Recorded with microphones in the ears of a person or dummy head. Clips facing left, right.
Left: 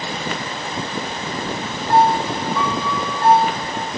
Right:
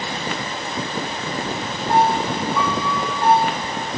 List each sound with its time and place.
1.9 s a piano: 15° right (ahead or behind), 5.5 m